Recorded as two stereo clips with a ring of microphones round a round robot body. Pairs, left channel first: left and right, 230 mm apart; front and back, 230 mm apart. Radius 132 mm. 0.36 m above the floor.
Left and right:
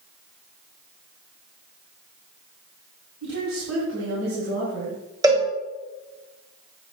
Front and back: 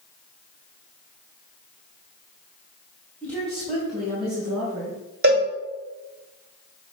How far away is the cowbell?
About 2.0 m.